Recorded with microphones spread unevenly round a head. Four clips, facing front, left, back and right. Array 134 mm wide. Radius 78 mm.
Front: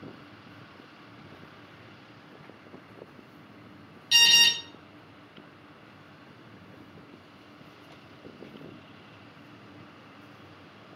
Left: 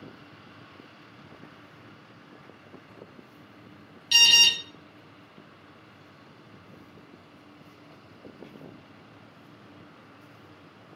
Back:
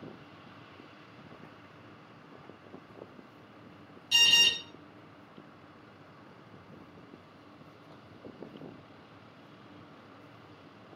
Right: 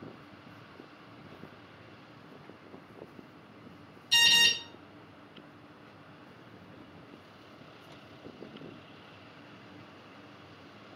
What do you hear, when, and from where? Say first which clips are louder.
4.1 s an alarm: left 3 dB, front 3 dB; 50° left, 1.4 m